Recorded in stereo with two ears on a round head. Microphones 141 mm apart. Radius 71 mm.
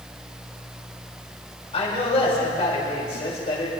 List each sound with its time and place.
1.7 s a man speaking: 40° left (ahead or behind), 5 m